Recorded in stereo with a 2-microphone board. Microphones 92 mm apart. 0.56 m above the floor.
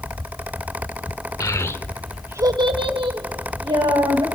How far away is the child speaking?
About 1.0 m.